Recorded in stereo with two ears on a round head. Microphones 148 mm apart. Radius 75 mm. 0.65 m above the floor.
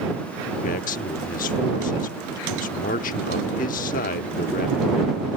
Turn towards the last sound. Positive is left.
turn(degrees=50)  # may be behind; listen again after turning